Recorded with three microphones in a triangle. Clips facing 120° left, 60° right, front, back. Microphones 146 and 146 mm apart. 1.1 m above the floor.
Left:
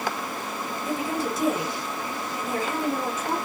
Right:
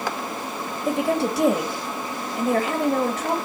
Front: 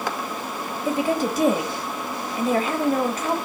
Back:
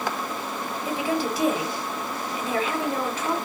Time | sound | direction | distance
0.8 | a woman speaking | 45° right | 2.5 m